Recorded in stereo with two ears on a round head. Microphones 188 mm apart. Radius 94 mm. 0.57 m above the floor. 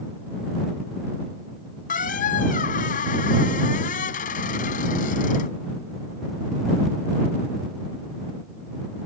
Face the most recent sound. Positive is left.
turn(degrees=40)  # may be behind; listen again after turning